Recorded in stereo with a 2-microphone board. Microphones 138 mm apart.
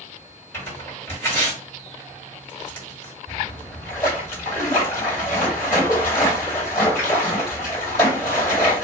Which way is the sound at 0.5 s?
15° left (ahead or behind).